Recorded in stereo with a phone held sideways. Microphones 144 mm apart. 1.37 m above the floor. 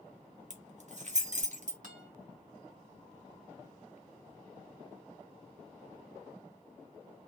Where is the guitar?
70° right (ahead or behind), 2.5 m.